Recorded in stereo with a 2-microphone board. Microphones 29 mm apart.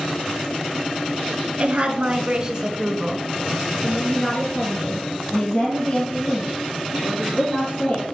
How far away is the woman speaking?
About 1.5 m.